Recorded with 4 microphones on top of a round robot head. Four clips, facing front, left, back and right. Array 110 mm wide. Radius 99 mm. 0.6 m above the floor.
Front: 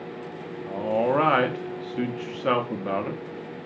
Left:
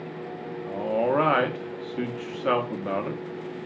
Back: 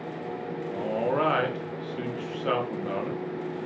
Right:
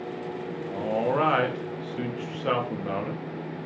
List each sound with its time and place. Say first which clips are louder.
0.7 s a man speaking: left 2 dB, front 5 dB; 30° left, 0.6 m